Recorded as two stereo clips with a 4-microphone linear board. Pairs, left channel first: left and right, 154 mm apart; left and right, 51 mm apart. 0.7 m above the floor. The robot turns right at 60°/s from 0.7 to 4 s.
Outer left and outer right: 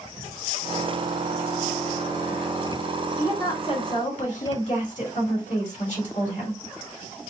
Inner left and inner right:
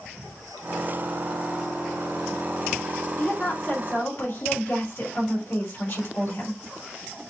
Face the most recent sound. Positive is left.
turn(degrees=65)